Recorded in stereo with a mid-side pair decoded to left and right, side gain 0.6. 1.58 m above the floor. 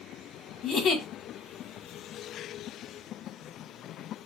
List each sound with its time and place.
0.6 s a giggle: 45° left, 1.6 m